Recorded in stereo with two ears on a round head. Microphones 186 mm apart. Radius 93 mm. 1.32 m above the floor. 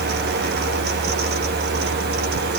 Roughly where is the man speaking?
No man speaking in this recording.